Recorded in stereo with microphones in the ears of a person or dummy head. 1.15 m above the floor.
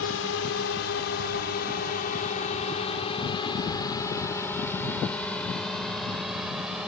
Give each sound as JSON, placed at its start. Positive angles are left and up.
{"t": 0.0, "sound": "a drone", "side_deg": 75}